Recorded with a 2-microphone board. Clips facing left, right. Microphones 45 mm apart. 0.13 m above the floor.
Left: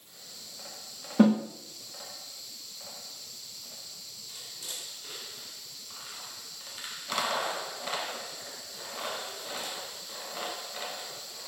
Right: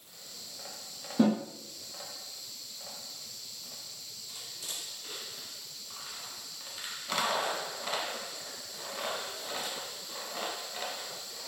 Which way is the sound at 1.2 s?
45° left (ahead or behind).